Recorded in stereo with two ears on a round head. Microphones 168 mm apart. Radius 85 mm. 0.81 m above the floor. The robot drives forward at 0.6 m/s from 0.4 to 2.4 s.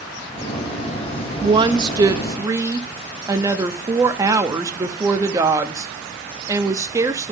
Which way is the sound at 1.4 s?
30° right (ahead or behind).